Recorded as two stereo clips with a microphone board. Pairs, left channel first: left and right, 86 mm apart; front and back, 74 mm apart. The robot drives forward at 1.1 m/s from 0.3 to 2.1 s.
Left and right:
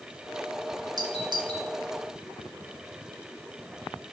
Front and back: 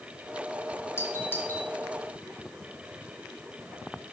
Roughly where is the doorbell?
Ahead right.